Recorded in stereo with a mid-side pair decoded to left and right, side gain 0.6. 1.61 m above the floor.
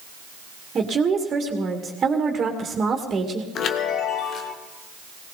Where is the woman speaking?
35° right, 2.5 m.